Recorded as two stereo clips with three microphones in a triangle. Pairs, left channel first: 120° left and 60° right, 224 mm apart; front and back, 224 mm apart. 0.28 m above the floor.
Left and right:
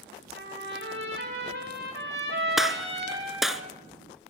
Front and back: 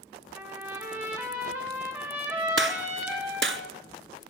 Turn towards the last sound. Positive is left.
turn(degrees=-150)